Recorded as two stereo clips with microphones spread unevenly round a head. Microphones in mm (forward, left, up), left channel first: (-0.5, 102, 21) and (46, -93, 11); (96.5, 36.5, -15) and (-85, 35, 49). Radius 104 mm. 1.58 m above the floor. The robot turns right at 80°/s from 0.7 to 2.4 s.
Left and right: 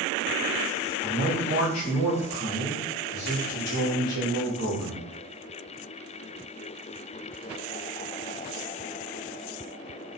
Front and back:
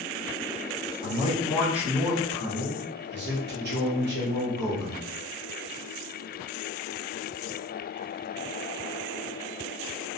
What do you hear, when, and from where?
1.0 s a man speaking: 35° left, 1.0 m; by 5.1 s 145° left, 1.0 m